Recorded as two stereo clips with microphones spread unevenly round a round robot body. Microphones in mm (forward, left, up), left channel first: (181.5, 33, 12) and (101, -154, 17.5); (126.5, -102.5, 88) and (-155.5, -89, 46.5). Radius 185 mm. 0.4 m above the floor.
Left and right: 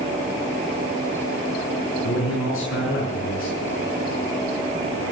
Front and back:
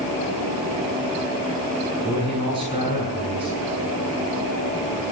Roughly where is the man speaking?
Left.